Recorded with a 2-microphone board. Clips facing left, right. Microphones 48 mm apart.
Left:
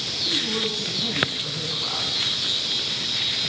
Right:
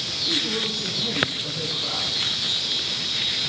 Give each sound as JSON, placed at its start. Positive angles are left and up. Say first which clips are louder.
{"t": 0.2, "sound": "a woman speaking", "louder": "even", "side_deg": 15, "distance_m": 3.0}